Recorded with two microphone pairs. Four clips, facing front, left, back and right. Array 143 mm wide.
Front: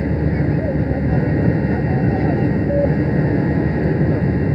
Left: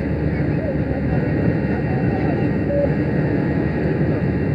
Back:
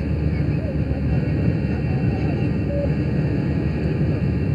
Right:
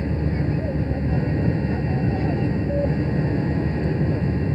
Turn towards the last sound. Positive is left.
turn(degrees=45)